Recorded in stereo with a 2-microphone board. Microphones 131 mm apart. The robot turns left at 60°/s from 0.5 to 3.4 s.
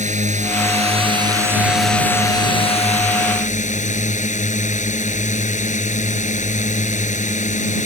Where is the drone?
100° right; by 7.9 s 85° left.